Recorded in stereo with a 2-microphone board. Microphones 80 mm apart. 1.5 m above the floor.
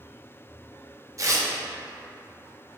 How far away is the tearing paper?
About 0.5 m.